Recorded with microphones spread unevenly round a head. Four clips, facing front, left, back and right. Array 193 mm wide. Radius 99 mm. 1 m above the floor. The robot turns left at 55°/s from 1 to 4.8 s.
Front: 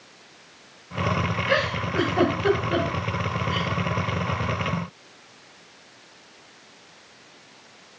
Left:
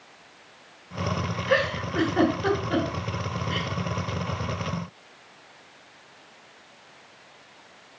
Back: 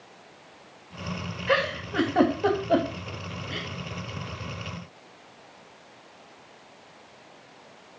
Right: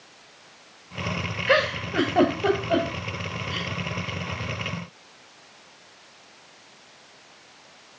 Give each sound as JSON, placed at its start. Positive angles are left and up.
{"t": 1.5, "sound": "a giggle", "azimuth_deg": -90, "distance_m": 3.0}